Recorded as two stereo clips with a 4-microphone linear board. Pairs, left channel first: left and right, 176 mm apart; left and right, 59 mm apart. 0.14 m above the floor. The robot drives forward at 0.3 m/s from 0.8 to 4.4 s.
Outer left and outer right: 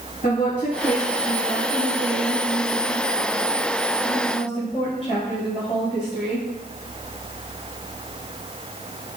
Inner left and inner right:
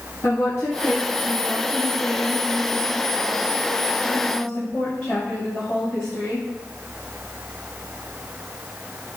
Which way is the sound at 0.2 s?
50° left (ahead or behind).